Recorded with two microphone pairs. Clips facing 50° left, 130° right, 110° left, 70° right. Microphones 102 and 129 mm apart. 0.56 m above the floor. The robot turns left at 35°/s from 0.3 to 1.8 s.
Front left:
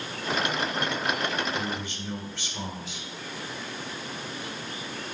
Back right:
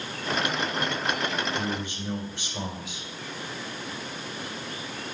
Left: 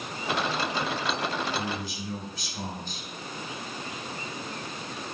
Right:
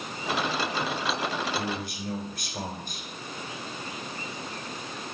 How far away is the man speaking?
About 2.5 m.